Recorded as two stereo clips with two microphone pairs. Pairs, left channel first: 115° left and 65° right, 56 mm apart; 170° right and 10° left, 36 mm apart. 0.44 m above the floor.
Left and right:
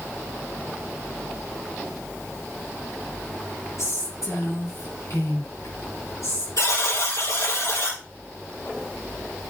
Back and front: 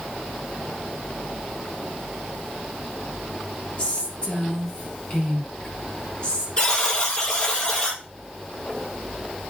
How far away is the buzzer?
About 5 m.